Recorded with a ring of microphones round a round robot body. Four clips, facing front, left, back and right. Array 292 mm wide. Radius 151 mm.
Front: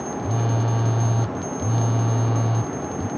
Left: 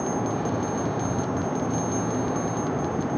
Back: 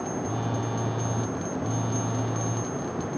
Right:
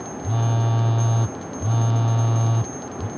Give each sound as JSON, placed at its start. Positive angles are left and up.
{"t": 0.2, "sound": "a phone buzzing", "azimuth_deg": -65}